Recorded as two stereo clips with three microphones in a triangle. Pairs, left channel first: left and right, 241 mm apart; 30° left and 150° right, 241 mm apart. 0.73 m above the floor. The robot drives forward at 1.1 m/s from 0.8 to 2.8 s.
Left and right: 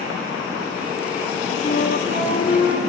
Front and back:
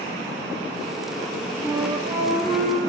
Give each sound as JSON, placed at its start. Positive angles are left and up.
{"t": 1.6, "sound": "a flute", "azimuth_deg": 140, "distance_m": 4.0}